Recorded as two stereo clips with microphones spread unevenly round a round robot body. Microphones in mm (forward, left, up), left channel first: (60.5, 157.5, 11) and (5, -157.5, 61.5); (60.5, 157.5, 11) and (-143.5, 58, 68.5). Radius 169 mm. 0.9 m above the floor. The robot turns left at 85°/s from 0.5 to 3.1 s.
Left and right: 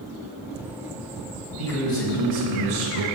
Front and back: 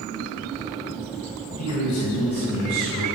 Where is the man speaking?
30° left, 6 m; by 3.0 s 95° right, 6 m.